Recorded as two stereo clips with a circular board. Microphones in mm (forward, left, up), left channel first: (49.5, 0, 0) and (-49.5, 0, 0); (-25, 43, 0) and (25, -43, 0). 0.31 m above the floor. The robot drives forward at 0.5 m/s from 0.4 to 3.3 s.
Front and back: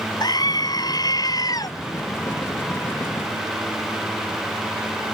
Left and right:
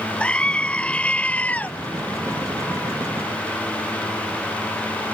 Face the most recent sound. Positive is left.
turn(degrees=50)